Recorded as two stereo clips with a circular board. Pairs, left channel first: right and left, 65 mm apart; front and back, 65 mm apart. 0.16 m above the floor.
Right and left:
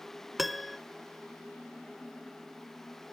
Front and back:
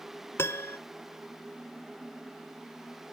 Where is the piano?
5° left, 0.6 m.